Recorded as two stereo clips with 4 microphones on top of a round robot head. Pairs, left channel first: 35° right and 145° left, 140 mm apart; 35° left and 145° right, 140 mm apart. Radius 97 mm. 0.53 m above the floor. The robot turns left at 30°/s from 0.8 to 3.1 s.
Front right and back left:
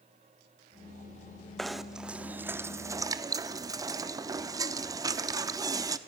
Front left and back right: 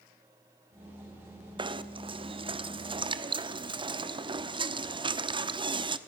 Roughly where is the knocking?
Behind right.